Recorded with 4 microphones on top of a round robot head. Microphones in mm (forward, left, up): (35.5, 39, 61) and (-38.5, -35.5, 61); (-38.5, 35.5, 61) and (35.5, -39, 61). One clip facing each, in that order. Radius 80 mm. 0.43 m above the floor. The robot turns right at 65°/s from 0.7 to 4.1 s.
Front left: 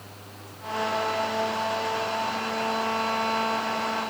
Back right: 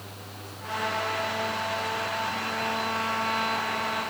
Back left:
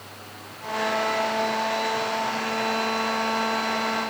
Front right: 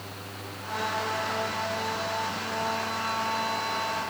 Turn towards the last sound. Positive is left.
No sound to turn to.